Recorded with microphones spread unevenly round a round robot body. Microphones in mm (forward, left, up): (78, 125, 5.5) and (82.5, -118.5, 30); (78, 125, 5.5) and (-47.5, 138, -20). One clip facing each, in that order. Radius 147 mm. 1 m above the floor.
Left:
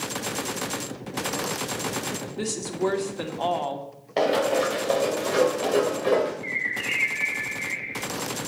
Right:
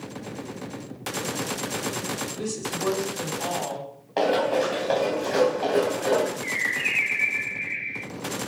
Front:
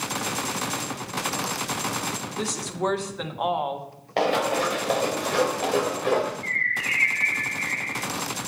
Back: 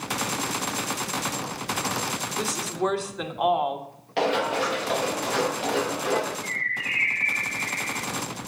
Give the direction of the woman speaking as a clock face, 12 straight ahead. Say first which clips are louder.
Left 5 dB, back 1 dB; 9 o'clock.